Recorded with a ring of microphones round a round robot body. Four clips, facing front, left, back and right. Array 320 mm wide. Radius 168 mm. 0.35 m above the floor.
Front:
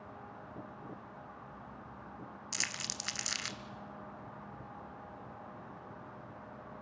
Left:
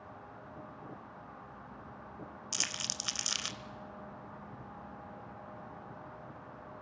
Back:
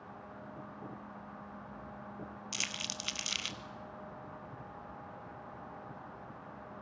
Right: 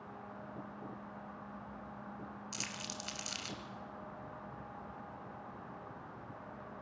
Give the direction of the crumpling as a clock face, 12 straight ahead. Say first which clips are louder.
Left 1 dB, even; 9 o'clock.